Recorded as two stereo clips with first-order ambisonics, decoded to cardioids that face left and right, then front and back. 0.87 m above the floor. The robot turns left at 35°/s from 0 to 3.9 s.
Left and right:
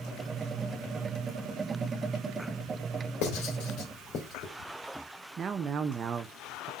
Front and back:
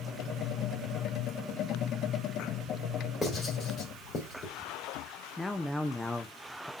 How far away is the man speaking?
About 0.5 m.